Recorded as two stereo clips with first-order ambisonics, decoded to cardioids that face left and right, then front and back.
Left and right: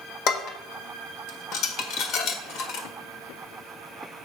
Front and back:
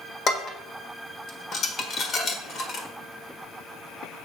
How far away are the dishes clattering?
About 1.2 m.